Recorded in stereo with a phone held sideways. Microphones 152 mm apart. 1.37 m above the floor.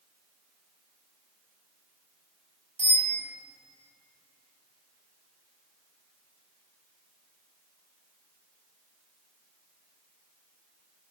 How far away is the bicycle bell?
About 6.5 m.